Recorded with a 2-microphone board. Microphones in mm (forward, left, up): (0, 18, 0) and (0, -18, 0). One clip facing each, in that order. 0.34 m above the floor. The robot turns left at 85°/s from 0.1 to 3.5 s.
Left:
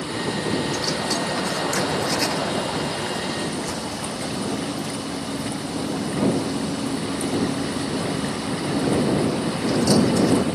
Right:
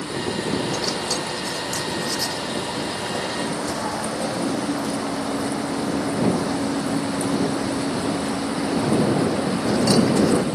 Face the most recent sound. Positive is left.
turn(degrees=-45)